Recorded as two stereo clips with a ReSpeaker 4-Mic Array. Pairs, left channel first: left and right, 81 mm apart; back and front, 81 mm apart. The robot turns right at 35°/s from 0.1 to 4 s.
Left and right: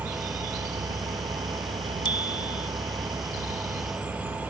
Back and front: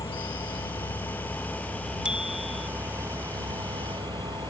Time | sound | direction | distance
0.0 | an engine running | 155° right | ?
2.0 | a bicycle bell | 80° left | ?